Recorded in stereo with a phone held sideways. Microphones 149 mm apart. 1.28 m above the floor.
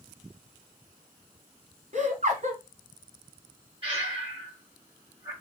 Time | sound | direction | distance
1.9 | laughter | 55° right (ahead or behind) | 1.1 m
3.8 | breathing | 40° right (ahead or behind) | 1.7 m